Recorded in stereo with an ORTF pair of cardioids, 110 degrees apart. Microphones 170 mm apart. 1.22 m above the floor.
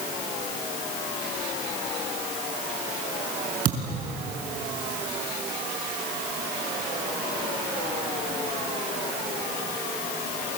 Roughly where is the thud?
Ahead right.